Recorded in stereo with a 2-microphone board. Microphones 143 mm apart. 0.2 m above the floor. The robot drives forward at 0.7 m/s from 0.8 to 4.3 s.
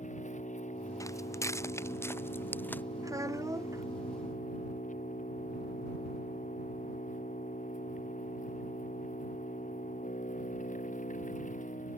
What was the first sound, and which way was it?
An engine running, 60° left (ahead or behind).